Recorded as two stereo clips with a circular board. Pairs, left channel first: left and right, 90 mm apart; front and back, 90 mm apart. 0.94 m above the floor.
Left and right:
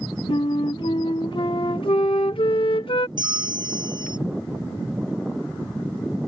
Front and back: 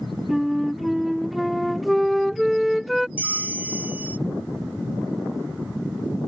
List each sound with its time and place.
0.3 s a flute: 90° left
3.2 s a bell: 110° right